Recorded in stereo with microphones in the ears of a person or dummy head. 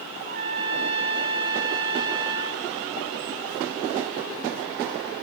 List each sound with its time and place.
0.2 s a trumpet: 45° right (ahead or behind), 1.9 m